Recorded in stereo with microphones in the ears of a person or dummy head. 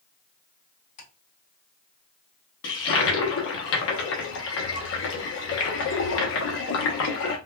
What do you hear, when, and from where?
1.0 s ticking: 65° left (ahead or behind), 3 m
2.6 s a toilet flushing: 70° left (ahead or behind), 0.9 m